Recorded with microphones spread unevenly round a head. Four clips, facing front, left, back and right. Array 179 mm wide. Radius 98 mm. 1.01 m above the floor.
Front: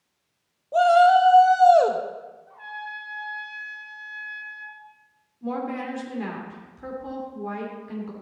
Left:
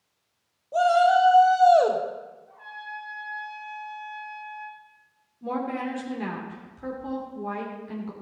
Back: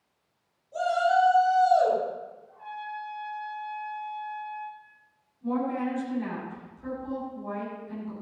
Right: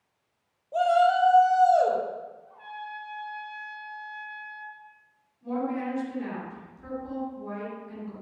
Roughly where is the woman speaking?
Ahead left.